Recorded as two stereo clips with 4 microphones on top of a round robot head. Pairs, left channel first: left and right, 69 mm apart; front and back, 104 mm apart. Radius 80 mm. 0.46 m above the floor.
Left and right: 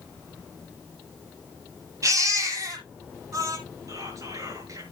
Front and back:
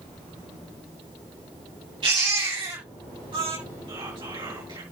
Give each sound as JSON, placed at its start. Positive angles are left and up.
{"t": 2.0, "sound": "a baby crying", "azimuth_deg": -130, "distance_m": 7.5}
{"t": 3.9, "sound": "whispering", "azimuth_deg": -125, "distance_m": 7.0}